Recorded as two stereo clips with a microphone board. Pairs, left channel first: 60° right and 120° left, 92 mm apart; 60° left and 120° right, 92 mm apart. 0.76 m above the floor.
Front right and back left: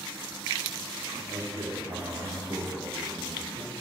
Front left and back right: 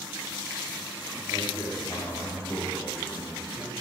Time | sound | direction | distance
1.3 | a man speaking | 95° left | 1.4 m